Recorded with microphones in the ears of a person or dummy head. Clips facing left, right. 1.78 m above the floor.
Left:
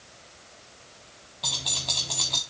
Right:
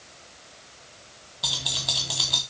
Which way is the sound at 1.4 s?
5° right (ahead or behind).